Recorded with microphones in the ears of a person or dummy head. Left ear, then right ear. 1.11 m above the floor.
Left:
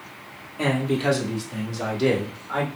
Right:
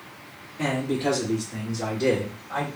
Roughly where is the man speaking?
Left.